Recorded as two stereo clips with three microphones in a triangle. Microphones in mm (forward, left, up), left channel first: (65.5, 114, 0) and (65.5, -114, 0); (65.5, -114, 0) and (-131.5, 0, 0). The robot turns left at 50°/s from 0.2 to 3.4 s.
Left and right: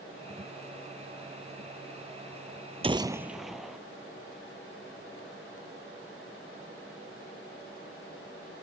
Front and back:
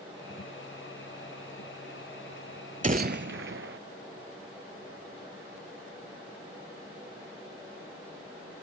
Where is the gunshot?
150° right; by 3.8 s straight behind.